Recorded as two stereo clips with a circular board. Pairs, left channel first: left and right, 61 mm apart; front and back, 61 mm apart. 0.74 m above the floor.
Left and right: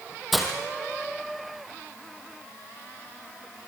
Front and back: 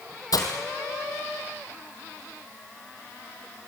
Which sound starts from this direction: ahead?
Breaking glass, at 0.3 s.